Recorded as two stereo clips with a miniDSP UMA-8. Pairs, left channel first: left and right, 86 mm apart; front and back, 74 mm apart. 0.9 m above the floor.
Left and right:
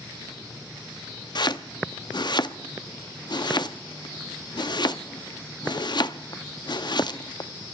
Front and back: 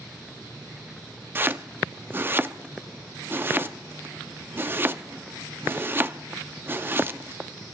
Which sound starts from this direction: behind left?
Chopping, at 1.4 s.